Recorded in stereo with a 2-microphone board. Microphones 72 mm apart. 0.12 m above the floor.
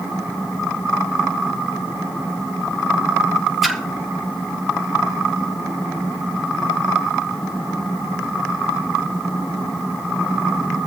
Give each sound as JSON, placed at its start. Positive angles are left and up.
{"t": 3.6, "sound": "a splash", "side_deg": -5, "distance_m": 1.5}